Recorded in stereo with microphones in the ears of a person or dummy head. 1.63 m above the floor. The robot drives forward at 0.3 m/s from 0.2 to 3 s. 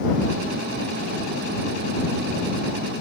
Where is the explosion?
No explosion in this recording.